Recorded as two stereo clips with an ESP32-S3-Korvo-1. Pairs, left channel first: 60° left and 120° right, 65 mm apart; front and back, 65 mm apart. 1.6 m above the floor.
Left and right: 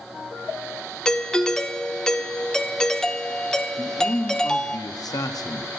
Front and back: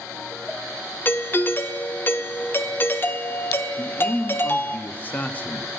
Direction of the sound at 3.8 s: 60° left.